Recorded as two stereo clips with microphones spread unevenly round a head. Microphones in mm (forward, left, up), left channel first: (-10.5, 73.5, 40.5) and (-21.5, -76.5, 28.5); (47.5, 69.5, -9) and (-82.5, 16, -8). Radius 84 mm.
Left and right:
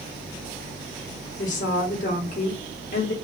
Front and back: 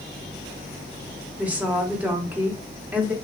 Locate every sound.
1.4 s a woman speaking: 125° left, 1.1 m